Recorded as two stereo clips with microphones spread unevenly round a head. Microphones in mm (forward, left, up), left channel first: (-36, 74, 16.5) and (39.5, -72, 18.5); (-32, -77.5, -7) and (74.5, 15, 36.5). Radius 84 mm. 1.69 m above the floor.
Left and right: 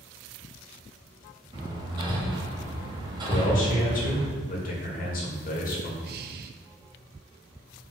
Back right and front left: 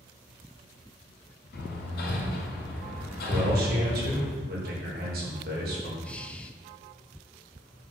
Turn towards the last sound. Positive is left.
turn(degrees=-45)